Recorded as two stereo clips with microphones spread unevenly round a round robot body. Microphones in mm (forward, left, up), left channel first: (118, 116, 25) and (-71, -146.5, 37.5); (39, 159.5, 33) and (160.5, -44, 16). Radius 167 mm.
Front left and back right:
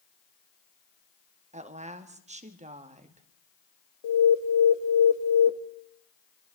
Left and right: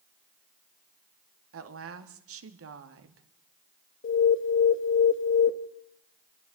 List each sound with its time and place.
1.5 s a woman speaking: 55° right, 2 m
4.0 s an alarm: 85° left, 1.5 m